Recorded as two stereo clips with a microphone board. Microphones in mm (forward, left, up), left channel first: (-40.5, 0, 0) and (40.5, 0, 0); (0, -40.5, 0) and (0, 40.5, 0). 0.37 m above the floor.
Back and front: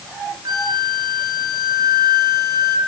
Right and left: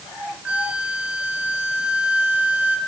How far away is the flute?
About 1.8 m.